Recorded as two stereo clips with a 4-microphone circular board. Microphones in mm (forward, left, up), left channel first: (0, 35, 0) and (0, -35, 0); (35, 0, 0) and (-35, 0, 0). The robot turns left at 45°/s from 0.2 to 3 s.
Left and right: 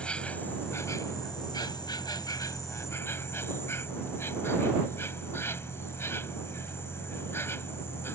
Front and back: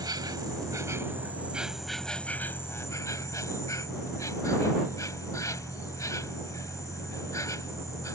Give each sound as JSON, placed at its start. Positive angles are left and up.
{"t": 0.0, "sound": "an insect", "azimuth_deg": 165}